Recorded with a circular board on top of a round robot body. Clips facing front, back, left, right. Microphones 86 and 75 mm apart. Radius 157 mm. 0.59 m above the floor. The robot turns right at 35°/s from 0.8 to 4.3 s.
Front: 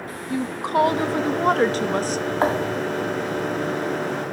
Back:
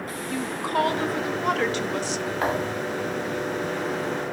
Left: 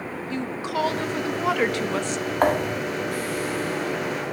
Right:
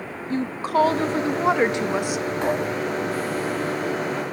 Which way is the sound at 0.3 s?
60° right.